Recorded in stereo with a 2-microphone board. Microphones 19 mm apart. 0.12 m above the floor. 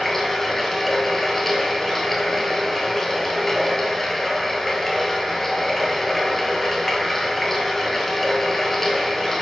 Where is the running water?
20° left (ahead or behind), 0.9 m.